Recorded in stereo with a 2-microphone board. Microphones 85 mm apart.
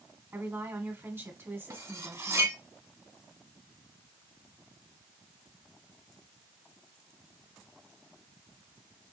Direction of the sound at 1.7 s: 40° right (ahead or behind).